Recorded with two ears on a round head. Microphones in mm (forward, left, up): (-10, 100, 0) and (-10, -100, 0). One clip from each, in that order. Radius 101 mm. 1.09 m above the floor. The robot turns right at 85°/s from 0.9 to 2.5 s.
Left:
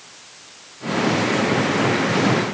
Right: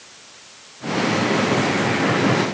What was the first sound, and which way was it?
Only background noise.